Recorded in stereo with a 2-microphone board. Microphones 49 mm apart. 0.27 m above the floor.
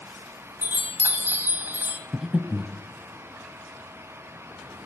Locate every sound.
0.6 s a chime: 40° right (ahead or behind), 1.1 m
2.1 s breathing: 5° right (ahead or behind), 0.6 m